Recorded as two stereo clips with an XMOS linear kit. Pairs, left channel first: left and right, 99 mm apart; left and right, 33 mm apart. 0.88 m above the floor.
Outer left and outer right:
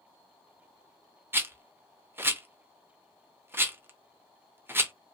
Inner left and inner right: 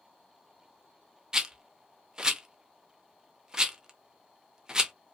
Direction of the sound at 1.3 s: 20° right (ahead or behind).